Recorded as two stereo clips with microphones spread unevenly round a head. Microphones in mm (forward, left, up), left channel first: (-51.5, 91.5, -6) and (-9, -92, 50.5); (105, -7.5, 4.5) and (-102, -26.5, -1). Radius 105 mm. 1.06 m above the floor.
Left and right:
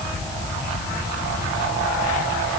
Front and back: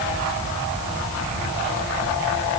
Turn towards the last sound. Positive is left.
No sound to turn to.